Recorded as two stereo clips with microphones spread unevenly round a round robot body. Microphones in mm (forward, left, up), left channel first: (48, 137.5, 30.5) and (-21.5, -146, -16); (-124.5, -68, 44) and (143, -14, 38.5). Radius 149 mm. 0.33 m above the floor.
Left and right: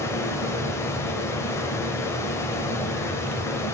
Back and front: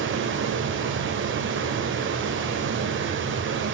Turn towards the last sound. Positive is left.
turn(degrees=-10)